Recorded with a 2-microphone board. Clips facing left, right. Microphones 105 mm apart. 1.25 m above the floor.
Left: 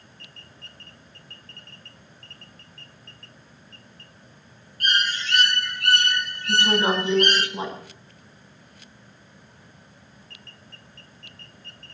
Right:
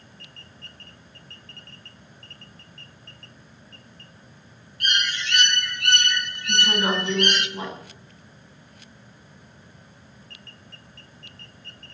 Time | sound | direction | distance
4.8 | a bird | 40° left (ahead or behind) | 1.1 m
6.5 | a woman speaking | 25° left (ahead or behind) | 8.5 m